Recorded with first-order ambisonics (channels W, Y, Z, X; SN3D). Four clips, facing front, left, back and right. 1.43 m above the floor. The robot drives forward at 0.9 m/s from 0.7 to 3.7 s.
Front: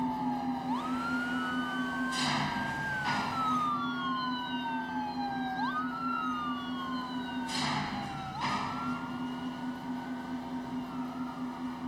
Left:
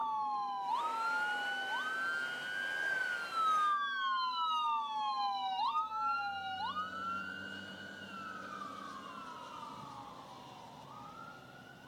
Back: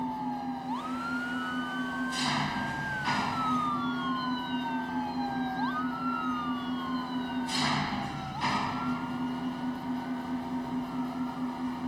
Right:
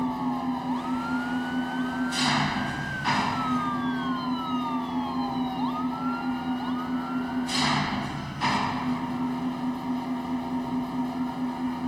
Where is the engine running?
85° right; by 11.9 s 105° right.